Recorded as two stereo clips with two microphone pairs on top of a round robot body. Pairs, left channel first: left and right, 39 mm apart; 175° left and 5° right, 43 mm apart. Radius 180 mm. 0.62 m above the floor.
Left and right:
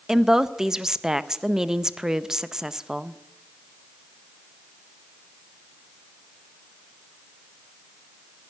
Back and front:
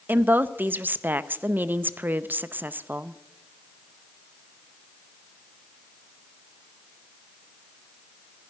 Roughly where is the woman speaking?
Ahead.